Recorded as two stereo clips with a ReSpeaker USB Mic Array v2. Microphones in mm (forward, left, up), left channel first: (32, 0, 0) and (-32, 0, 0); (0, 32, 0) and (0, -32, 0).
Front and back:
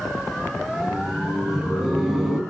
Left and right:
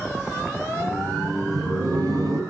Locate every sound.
0.7 s laughter: 95° right, 3.5 m